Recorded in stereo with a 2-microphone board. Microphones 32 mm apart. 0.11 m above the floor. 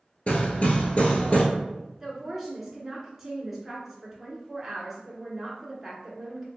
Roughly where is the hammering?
Left.